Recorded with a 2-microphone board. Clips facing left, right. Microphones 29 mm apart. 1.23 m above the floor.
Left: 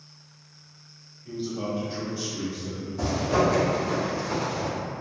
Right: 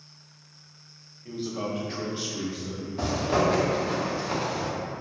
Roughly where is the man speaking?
Right.